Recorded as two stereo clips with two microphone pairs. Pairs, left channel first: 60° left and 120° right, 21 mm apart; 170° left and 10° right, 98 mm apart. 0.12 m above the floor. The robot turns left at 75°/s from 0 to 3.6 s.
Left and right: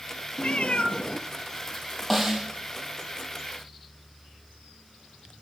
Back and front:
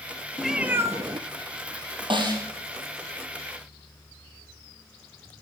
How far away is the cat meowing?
About 0.6 m.